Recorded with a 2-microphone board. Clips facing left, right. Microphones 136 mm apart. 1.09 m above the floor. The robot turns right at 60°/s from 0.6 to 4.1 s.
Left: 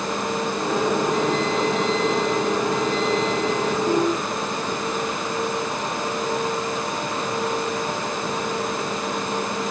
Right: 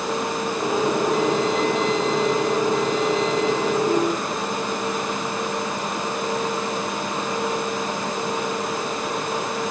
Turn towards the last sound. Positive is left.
No sound to turn to.